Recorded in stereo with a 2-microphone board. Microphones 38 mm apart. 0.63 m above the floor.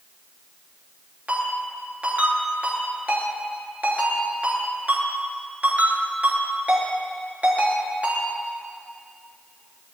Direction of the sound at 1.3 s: 45° right (ahead or behind).